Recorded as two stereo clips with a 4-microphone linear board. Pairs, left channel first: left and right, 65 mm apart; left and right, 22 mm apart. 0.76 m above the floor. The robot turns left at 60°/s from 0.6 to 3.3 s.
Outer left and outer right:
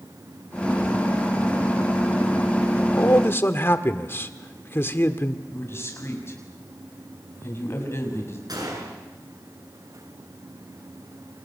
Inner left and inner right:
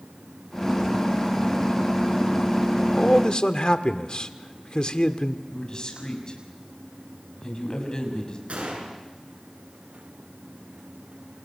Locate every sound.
2.8 s a man speaking: 70° left, 1.6 m; by 5.4 s 40° left, 1.6 m
5.5 s a man speaking: 40° left (ahead or behind), 6.5 m
8.5 s a gunshot: 80° right, 7 m